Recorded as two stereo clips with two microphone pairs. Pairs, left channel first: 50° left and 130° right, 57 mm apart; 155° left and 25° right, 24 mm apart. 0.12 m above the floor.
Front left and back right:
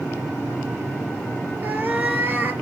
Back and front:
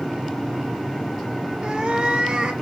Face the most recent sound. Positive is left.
turn(degrees=-75)